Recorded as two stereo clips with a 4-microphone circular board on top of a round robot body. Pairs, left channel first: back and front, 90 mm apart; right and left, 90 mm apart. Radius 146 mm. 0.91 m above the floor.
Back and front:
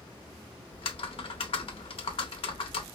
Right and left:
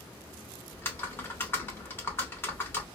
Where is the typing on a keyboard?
155° right, 0.7 m.